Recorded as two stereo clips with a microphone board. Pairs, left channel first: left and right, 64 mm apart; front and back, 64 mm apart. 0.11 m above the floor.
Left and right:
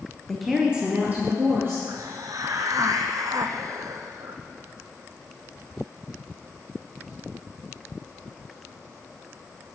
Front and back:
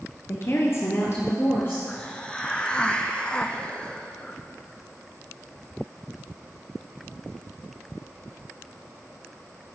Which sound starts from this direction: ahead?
A woman speaking, at 0.3 s.